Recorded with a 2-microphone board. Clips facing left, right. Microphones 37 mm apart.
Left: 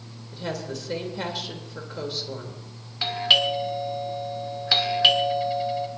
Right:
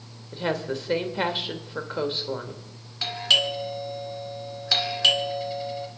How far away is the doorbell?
About 1.6 m.